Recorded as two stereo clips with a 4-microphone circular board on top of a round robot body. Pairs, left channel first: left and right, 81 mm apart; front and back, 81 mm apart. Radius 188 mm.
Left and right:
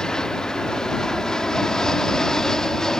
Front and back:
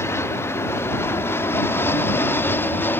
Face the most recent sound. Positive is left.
turn(degrees=15)